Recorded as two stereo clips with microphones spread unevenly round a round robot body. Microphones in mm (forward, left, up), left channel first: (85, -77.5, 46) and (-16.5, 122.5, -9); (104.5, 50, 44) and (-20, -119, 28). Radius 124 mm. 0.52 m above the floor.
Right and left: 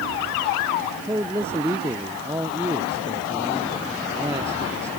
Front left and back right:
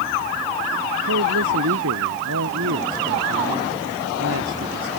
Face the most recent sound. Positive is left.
turn(degrees=-165)